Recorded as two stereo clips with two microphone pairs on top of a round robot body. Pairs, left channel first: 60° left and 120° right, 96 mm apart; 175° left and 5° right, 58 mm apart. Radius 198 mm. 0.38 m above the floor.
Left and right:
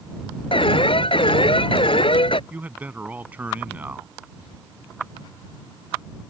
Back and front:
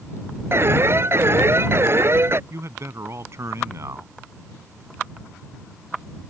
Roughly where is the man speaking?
Ahead right.